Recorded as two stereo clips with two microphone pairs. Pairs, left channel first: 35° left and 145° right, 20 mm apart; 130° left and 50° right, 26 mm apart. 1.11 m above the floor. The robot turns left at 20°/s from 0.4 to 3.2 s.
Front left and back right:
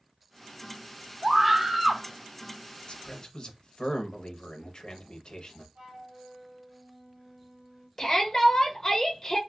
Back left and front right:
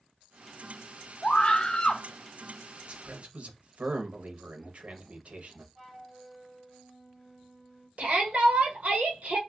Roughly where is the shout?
Ahead right.